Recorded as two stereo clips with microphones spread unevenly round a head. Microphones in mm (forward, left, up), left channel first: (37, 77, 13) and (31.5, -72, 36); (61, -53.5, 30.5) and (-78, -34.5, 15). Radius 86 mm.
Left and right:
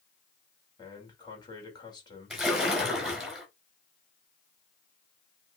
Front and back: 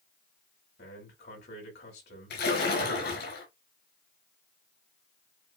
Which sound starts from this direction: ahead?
A splash, at 2.3 s.